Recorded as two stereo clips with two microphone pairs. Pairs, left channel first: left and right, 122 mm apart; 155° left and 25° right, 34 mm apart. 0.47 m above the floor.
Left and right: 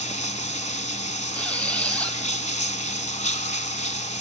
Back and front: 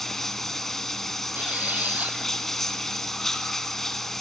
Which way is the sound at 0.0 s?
75° left.